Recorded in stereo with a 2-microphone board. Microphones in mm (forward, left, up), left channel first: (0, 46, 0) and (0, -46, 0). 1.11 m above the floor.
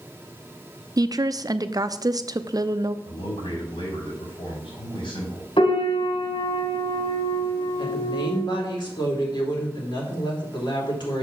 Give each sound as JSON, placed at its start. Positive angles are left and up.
{"t": 1.0, "sound": "a woman speaking", "side_deg": -40, "distance_m": 0.5}
{"t": 3.0, "sound": "a man speaking", "side_deg": 65, "distance_m": 6.0}
{"t": 5.6, "sound": "a piano", "side_deg": 75, "distance_m": 3.5}
{"t": 7.8, "sound": "a woman speaking", "side_deg": 60, "distance_m": 3.0}